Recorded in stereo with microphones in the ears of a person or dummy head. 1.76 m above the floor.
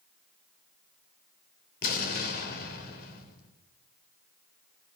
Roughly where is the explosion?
Left.